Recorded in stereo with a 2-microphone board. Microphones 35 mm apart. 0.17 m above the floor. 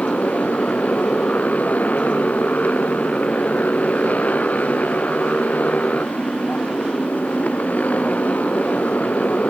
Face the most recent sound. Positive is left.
turn(degrees=45)  # may be behind; listen again after turning